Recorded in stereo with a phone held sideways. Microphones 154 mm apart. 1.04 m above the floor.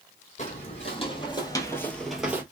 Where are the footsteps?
45° left (ahead or behind), 1.9 m; by 2.4 s 10° right (ahead or behind), 1.1 m.